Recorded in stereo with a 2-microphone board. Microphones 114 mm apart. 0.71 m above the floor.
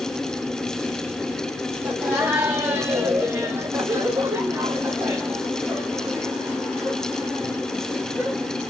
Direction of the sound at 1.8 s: 10° right (ahead or behind).